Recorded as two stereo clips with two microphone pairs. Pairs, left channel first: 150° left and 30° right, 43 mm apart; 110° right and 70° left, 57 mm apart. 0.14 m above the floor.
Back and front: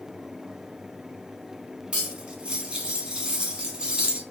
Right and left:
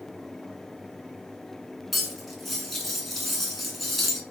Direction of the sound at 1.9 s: 15° right.